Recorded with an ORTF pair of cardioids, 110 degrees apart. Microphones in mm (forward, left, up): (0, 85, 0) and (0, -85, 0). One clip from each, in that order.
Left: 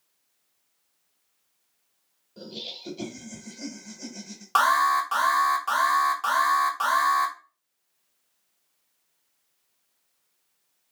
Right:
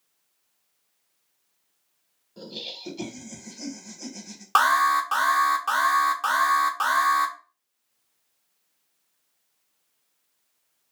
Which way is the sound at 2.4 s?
10° right.